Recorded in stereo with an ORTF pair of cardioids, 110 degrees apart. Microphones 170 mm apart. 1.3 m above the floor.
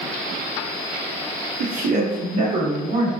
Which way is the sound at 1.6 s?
60° right.